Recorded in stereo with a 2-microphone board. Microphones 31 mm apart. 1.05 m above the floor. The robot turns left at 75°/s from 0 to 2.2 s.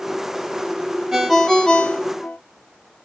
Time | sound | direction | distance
1.1 | a ringtone | 160° right | 0.6 m